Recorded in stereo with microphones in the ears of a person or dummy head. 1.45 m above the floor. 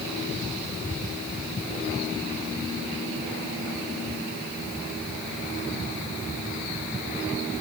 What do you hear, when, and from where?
Only background noise.